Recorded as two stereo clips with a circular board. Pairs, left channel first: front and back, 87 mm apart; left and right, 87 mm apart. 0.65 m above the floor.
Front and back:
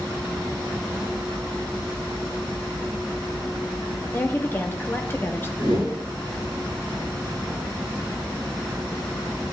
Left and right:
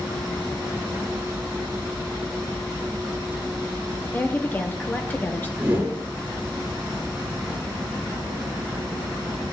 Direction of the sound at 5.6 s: 20° right.